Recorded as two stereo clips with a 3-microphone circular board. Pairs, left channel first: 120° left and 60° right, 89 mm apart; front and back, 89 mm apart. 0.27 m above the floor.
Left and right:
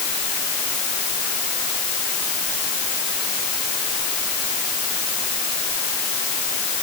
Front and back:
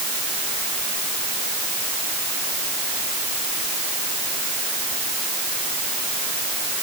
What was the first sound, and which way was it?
Only background noise.